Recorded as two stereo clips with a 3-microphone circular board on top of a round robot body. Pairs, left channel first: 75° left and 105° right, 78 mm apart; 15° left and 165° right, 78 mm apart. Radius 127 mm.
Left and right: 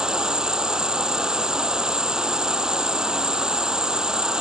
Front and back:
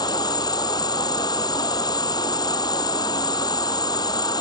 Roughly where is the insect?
Ahead right.